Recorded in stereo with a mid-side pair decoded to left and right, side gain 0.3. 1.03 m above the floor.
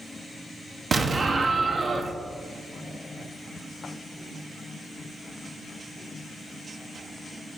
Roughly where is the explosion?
Ahead right.